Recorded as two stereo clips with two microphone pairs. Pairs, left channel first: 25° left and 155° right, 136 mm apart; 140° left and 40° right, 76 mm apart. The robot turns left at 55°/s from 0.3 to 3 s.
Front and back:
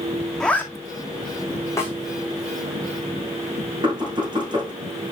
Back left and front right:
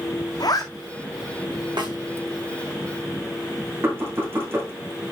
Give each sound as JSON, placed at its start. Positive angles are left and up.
{"t": 0.4, "sound": "a zipper", "azimuth_deg": 110, "distance_m": 1.8}
{"t": 1.8, "sound": "a snare drum", "azimuth_deg": -45, "distance_m": 5.5}
{"t": 3.8, "sound": "knocking", "azimuth_deg": -100, "distance_m": 6.0}